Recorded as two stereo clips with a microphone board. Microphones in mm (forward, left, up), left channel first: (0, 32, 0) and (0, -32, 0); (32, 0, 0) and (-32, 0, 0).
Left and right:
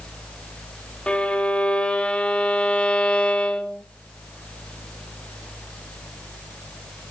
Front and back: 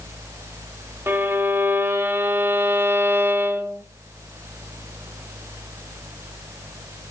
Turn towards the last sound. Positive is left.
turn(degrees=155)